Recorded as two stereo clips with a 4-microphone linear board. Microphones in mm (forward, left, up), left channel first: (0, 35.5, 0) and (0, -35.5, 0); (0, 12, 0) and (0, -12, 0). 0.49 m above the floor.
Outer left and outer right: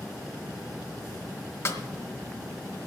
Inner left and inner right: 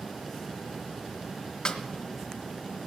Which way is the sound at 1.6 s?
40° left (ahead or behind).